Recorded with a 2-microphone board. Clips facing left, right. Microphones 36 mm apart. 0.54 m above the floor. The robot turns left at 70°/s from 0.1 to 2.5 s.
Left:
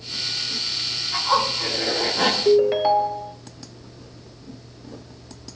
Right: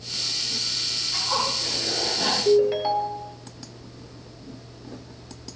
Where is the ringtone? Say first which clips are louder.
Left 2 dB; 25° left (ahead or behind), 0.7 m; by 3.4 s 20° left (ahead or behind), 0.7 m.